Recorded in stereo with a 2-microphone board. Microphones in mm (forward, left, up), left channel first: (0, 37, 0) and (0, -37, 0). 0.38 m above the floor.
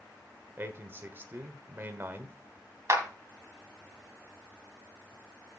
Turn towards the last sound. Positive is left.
turn(degrees=-40)  # may be behind; listen again after turning